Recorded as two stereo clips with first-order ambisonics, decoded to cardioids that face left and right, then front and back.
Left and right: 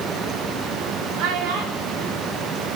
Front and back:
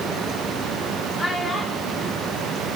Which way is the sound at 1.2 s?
80° right.